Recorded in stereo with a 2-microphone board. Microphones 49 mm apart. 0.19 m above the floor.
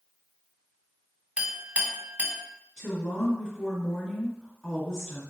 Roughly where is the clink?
Right.